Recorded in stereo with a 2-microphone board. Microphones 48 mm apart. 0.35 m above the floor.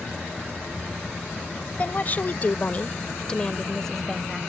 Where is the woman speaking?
35° left (ahead or behind); by 4.4 s 5° left (ahead or behind).